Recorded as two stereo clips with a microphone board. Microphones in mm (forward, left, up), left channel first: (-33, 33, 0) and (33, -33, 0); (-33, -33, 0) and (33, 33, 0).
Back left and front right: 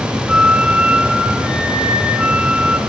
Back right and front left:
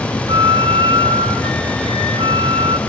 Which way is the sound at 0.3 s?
35° left.